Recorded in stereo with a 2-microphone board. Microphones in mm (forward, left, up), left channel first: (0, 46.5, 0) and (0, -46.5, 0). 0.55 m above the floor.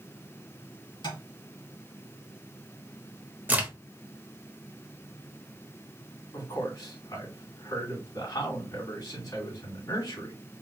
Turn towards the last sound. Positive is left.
turn(degrees=40)  # may be behind; listen again after turning